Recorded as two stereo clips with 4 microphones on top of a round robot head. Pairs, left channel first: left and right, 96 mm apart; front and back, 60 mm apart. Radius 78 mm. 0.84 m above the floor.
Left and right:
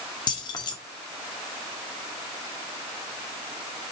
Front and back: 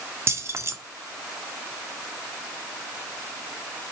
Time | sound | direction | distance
0.3 | keys jangling | 140° left | 1.5 m